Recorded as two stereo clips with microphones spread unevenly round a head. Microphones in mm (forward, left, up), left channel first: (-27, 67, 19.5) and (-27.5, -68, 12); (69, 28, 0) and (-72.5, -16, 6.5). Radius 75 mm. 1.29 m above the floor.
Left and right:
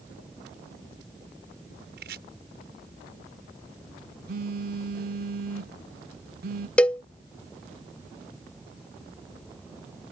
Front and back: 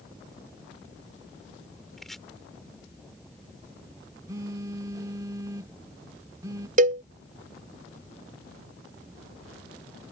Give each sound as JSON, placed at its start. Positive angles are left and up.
{"t": 2.0, "sound": "chopping", "azimuth_deg": -70}
{"t": 4.3, "sound": "a phone buzzing", "azimuth_deg": -95}
{"t": 6.8, "sound": "a cowbell", "azimuth_deg": 170}